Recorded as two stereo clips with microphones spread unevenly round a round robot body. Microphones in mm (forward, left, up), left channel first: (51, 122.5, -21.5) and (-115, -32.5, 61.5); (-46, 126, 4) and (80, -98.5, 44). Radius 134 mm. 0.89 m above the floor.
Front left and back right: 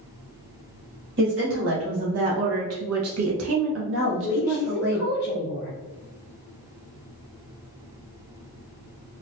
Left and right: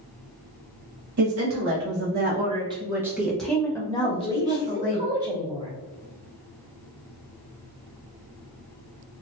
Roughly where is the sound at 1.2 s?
Right.